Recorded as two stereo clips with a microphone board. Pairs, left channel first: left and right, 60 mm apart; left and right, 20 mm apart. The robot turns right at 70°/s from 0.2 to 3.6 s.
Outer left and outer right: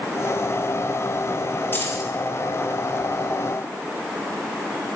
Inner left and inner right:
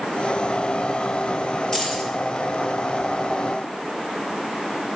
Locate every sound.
1.7 s keys jangling: 30° left (ahead or behind), 5.5 m; by 2.1 s 55° left (ahead or behind), 5.5 m